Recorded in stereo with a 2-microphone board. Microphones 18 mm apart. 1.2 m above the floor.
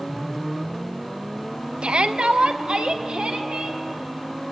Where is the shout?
75° right (ahead or behind), 0.8 m.